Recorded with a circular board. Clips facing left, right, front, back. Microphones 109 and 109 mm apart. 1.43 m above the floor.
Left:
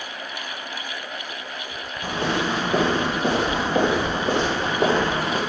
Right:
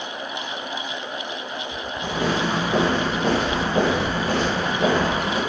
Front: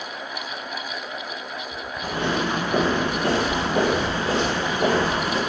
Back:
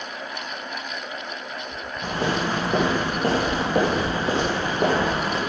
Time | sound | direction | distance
2.0 | footsteps | 160° right | 1.7 m